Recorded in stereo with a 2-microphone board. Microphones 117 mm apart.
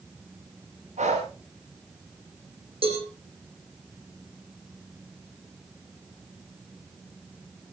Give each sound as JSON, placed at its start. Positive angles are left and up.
{"t": 1.0, "sound": "breathing", "side_deg": -85, "distance_m": 7.0}
{"t": 2.8, "sound": "a cowbell", "side_deg": -55, "distance_m": 7.5}